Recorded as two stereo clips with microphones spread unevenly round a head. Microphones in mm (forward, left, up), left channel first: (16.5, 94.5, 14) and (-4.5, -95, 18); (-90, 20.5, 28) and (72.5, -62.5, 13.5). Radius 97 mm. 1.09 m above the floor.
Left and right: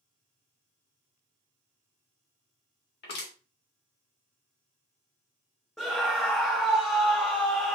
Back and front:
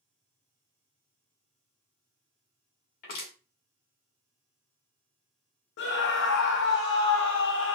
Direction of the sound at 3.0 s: 115° left.